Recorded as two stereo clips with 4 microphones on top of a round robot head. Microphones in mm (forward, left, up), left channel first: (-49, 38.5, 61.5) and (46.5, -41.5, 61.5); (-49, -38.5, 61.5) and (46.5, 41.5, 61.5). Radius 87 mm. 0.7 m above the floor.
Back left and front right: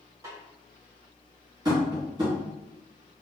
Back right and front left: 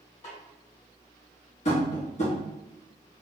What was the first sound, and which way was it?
A snare drum, 105° right.